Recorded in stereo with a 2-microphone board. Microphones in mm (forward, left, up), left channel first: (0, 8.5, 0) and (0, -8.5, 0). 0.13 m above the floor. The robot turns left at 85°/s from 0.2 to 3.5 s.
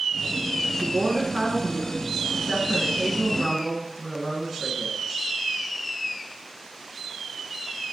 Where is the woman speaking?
30° right, 1.7 m; by 5.0 s 90° left, 1.7 m.